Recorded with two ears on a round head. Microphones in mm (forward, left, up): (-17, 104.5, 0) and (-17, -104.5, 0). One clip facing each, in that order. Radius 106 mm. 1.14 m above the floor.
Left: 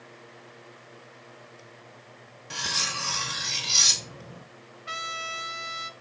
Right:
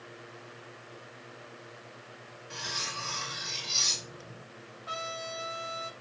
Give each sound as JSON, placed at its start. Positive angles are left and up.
{"t": 2.5, "sound": "cutlery clinking", "side_deg": 65, "distance_m": 0.9}
{"t": 4.9, "sound": "a trumpet", "side_deg": 30, "distance_m": 1.1}